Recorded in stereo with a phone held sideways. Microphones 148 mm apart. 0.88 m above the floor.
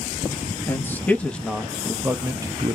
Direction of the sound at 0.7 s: 15° left (ahead or behind).